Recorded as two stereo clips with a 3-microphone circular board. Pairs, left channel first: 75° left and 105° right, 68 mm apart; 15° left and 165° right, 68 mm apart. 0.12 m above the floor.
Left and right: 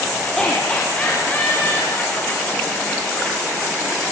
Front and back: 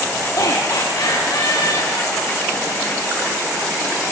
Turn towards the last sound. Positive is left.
turn(degrees=35)